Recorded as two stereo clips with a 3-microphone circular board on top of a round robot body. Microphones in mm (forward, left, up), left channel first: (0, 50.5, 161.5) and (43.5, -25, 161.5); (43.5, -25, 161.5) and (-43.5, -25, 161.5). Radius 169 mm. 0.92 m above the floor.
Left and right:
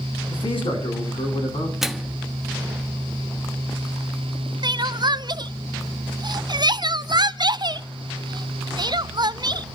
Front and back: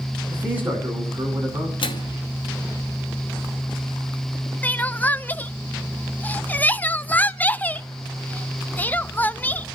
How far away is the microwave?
About 1.2 m.